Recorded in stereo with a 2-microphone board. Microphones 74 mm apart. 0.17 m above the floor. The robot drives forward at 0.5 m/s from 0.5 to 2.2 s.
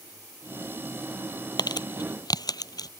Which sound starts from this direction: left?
Crumpling, at 1.6 s.